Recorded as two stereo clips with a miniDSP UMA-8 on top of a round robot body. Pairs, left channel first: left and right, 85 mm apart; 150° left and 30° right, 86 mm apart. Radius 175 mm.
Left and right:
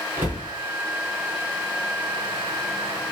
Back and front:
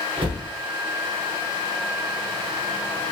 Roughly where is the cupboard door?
Ahead right.